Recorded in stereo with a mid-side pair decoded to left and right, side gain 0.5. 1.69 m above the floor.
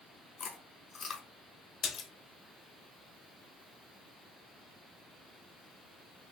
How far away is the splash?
About 1.1 m.